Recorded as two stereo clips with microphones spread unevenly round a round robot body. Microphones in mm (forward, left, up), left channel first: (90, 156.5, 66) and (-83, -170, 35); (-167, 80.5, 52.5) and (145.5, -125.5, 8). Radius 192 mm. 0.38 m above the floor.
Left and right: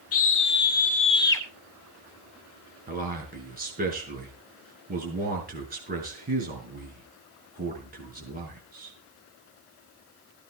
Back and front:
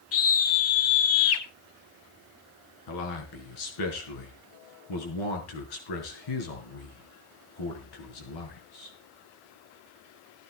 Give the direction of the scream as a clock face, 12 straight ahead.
9 o'clock.